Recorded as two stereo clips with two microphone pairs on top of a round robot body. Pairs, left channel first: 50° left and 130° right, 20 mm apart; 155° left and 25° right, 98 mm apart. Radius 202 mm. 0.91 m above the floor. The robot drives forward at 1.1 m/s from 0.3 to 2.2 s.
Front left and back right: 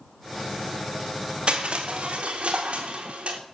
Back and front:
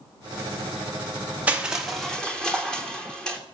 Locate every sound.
1.5 s crushing: 95° right, 1.8 m; by 3.4 s 120° right, 2 m